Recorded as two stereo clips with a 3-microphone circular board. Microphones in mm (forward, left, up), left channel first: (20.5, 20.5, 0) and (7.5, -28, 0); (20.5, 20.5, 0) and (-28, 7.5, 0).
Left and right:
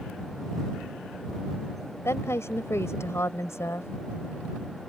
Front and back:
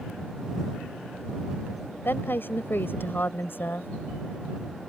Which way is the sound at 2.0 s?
55° left.